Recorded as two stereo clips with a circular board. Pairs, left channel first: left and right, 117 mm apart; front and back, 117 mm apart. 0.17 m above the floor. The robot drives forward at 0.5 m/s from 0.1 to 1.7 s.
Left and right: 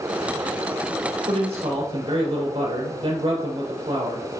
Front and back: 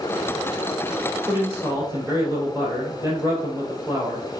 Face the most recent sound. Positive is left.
turn(degrees=-120)